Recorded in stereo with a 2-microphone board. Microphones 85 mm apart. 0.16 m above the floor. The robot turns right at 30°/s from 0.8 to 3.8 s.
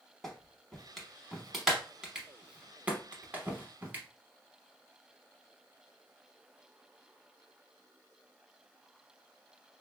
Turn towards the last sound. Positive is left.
turn(degrees=-20)  # may be behind; listen again after turning